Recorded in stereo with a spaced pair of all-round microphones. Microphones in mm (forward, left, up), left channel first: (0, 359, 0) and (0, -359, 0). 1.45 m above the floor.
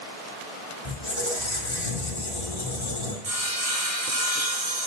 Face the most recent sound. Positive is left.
turn(degrees=-55)  # may be behind; listen again after turning